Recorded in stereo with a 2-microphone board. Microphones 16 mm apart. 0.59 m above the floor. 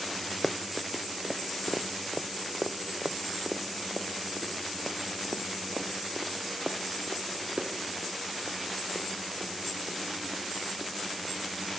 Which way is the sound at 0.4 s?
5° left (ahead or behind).